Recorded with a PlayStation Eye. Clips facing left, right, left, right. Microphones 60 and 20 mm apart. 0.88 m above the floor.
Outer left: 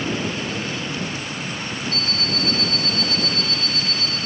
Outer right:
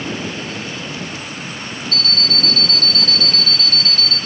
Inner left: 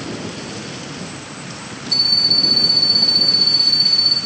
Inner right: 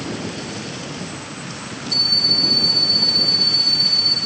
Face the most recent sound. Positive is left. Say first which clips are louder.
# outer right 6 dB, inner left 2 dB
turn(degrees=20)  # may be behind; listen again after turning